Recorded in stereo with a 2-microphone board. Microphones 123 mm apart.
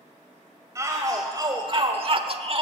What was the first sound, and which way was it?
A shout, 25° right (ahead or behind).